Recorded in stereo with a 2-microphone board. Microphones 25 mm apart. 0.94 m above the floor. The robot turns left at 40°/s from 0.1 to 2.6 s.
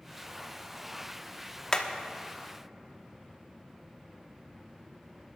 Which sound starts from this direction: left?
Hammering, at 1.7 s.